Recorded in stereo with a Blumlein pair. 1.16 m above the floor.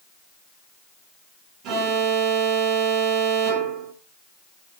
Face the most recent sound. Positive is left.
turn(degrees=-40)